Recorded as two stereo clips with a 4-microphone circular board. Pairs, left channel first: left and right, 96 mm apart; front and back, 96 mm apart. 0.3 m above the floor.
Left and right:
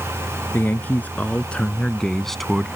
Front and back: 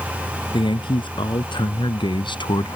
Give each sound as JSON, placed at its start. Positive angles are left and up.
{"t": 0.5, "sound": "a man speaking", "azimuth_deg": 20}